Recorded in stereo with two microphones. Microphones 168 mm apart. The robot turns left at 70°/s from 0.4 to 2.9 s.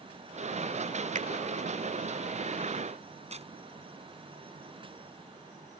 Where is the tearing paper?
40° right (ahead or behind).